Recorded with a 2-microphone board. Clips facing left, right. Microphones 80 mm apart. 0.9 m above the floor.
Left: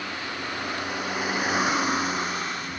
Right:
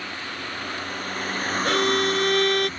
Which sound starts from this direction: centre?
A vehicle, at 0.0 s.